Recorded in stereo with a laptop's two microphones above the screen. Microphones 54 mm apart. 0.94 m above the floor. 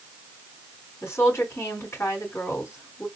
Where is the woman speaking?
60° left (ahead or behind), 2.5 m.